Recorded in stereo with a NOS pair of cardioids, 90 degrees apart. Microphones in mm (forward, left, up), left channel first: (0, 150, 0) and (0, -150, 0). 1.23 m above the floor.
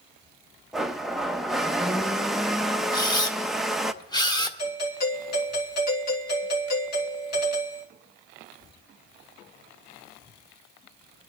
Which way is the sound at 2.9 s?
15° left.